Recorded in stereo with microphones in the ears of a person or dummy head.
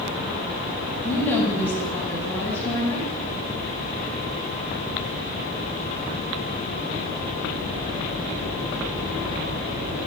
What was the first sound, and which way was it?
A woman speaking, 10° left (ahead or behind).